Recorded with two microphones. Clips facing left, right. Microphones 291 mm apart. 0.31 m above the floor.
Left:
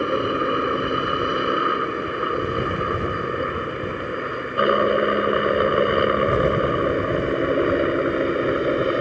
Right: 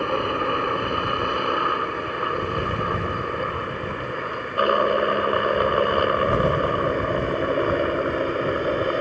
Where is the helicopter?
20° left (ahead or behind); by 9.0 s 25° left (ahead or behind).